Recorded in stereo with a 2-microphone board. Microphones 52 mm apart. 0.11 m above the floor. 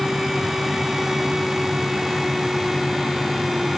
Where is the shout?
No shout in this recording.